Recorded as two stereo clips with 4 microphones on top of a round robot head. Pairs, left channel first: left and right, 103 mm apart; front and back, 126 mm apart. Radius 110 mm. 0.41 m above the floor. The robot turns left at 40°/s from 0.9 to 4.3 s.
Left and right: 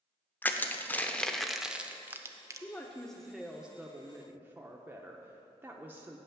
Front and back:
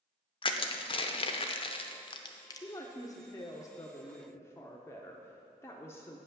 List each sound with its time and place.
0.4 s crushing: 20° left, 0.8 m; by 2.7 s 50° right, 0.8 m
2.6 s a woman speaking: 25° left, 0.8 m; by 6.2 s 40° right, 0.8 m